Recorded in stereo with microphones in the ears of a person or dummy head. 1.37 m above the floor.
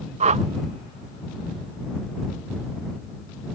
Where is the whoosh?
35° right (ahead or behind).